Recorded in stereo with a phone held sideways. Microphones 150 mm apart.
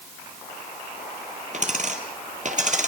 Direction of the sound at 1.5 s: 55° right (ahead or behind).